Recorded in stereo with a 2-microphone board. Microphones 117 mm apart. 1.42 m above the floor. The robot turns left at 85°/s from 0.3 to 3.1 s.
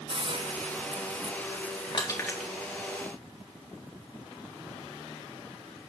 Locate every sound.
0.1 s a hiss: 50° right, 1.3 m; by 2.5 s 125° left, 1.3 m
1.9 s crushing: 45° left (ahead or behind), 3.5 m; by 2.5 s 5° right (ahead or behind), 3.5 m